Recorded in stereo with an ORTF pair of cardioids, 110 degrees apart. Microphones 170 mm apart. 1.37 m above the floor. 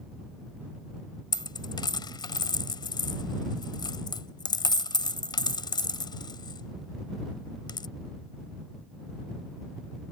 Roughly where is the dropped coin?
Ahead left.